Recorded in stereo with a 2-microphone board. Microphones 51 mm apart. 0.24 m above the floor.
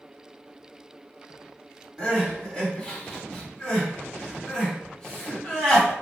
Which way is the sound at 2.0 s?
15° left (ahead or behind).